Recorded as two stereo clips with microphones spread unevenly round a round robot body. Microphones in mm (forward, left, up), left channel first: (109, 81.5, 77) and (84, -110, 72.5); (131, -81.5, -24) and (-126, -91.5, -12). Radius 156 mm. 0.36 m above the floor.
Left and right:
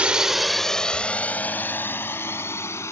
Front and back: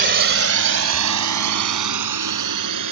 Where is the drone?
175° right; by 2.9 s 160° left.